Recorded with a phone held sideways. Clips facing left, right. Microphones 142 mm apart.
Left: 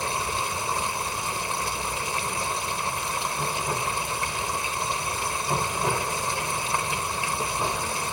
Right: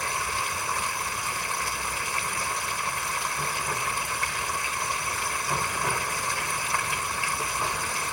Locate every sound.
0.0 s running water: 25° left (ahead or behind)